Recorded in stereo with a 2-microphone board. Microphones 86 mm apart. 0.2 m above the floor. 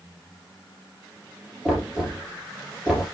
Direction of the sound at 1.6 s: 10° right (ahead or behind).